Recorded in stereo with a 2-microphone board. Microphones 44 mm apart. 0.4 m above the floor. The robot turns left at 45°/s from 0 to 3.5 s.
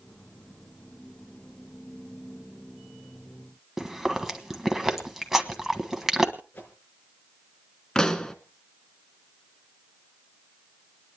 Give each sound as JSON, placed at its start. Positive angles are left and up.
{"t": 3.8, "sound": "chewing", "side_deg": -10, "distance_m": 1.3}
{"t": 6.5, "sound": "a whoosh", "side_deg": 35, "distance_m": 5.0}
{"t": 8.0, "sound": "a pop", "side_deg": 15, "distance_m": 1.0}